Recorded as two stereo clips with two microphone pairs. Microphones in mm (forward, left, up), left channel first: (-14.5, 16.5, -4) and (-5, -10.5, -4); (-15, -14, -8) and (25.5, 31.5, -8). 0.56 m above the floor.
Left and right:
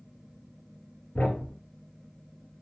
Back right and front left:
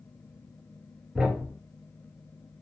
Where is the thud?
130° left, 2 m.